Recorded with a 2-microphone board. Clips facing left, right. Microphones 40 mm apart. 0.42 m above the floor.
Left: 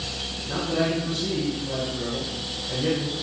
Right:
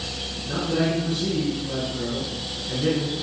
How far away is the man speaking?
About 5.5 m.